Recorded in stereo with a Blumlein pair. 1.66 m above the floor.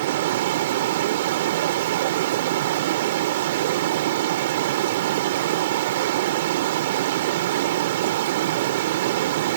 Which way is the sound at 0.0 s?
55° right.